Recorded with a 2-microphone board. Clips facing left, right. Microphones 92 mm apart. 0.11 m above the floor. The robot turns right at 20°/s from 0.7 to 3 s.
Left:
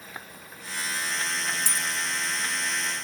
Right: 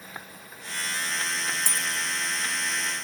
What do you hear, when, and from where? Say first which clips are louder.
1.7 s a dropped coin: even; 50° right (ahead or behind), 1.1 m; by 1.9 s 45° right (ahead or behind), 1.1 m